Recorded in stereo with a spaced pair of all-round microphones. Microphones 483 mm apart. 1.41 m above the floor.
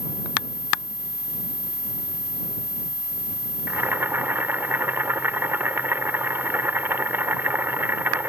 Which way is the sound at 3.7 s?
5° right (ahead or behind).